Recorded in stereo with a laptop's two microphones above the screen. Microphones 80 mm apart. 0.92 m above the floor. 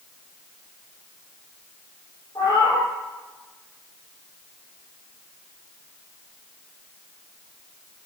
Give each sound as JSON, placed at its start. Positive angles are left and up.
{"t": 2.4, "sound": "a cat meowing", "side_deg": 55, "distance_m": 3.0}